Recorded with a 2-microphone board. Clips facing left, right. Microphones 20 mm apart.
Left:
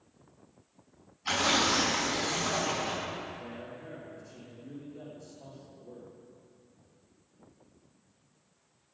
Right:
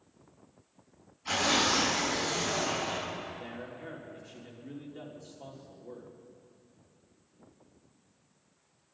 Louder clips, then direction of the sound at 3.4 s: Right 1 dB; 70° right (ahead or behind).